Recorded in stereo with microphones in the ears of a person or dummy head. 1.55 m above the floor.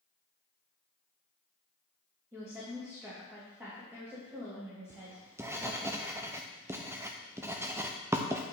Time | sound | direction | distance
2.3 | a woman speaking | 10° right (ahead or behind) | 2.5 m
4.9 | writing | 10° right (ahead or behind) | 0.7 m